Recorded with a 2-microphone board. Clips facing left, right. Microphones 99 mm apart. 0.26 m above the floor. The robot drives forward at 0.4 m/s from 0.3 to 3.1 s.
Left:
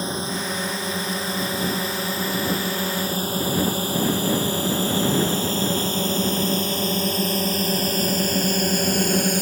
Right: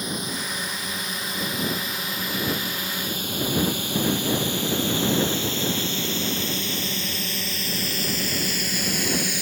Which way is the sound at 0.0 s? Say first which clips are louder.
Left 4 dB; 30° left (ahead or behind).